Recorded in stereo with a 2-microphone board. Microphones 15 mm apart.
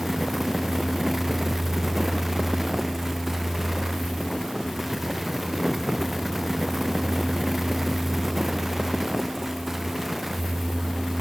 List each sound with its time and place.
Only background noise.